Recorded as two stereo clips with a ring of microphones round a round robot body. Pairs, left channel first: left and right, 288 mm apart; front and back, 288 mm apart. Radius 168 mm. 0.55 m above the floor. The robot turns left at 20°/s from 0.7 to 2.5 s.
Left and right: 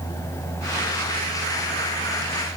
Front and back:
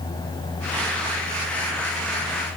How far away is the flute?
I don't hear a flute.